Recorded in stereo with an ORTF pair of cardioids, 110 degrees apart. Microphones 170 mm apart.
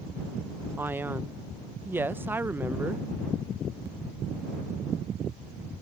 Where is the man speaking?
10° right.